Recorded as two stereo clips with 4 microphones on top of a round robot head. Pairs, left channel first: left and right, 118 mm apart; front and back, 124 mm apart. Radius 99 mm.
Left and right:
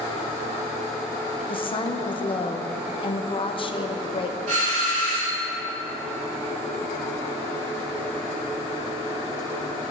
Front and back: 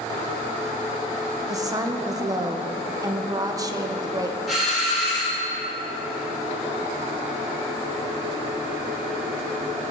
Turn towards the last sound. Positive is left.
turn(degrees=-90)